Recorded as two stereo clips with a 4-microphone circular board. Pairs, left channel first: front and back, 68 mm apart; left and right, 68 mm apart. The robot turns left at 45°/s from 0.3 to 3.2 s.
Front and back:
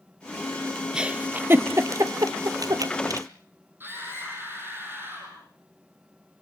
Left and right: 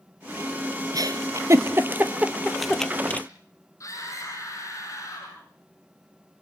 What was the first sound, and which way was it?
A giggle, 105° right.